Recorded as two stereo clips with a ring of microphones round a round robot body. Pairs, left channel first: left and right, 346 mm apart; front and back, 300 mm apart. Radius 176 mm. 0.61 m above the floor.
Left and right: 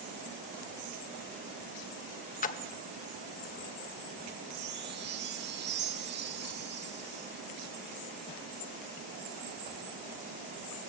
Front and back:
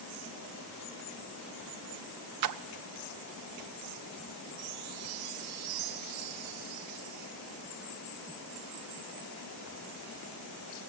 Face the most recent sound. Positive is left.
turn(degrees=-155)